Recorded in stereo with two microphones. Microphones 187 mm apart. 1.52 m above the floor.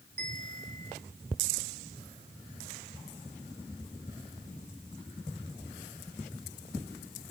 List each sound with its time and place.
0.2 s a bell: 60° right (ahead or behind), 2.5 m